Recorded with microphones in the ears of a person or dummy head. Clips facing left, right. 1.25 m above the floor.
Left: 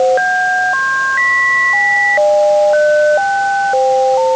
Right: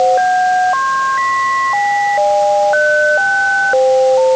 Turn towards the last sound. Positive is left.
No sound to turn to.